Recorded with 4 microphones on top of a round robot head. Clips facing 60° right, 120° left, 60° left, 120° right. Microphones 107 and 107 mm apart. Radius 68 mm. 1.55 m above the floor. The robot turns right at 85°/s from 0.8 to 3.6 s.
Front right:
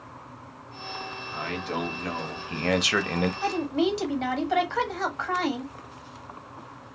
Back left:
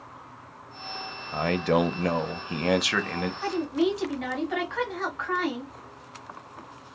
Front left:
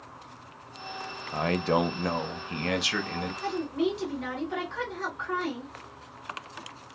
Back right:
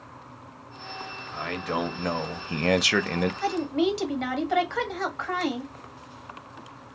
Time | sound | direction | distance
1.3 | a man speaking | 80° left | 0.6 m
3.4 | a woman speaking | 130° right | 1.3 m